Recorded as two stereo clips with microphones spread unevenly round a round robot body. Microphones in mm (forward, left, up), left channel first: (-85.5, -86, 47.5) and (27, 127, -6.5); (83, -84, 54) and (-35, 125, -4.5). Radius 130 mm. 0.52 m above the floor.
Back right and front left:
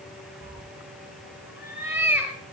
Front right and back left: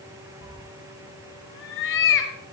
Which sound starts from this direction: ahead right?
A cat meowing, at 0.4 s.